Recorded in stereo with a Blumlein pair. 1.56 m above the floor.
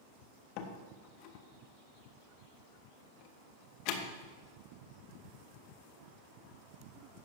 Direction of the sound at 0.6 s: 45° left.